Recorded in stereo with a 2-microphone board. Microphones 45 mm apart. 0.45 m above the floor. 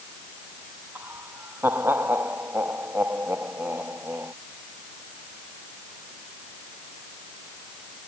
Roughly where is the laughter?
Right.